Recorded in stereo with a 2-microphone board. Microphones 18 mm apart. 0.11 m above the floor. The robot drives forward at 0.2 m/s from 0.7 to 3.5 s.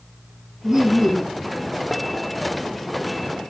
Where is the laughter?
20° right (ahead or behind), 5 m.